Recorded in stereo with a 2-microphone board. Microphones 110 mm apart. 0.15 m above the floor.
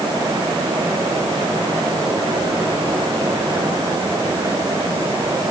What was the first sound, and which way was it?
Only background noise.